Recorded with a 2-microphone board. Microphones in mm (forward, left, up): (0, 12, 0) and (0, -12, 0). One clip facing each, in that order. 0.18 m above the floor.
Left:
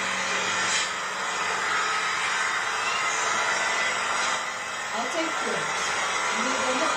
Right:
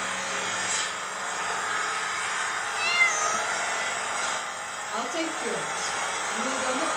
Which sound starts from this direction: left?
An engine running, at 0.0 s.